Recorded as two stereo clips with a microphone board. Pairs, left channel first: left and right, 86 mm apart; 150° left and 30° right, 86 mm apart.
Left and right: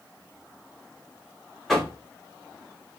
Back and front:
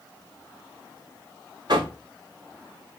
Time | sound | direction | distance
1.7 | knocking | straight ahead | 1.6 m